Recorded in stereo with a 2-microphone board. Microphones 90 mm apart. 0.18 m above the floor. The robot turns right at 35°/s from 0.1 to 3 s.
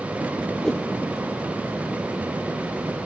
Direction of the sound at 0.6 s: 5° left (ahead or behind).